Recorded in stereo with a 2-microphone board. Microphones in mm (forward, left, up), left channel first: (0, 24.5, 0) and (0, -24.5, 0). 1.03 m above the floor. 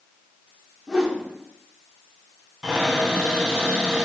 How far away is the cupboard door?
About 1.0 m.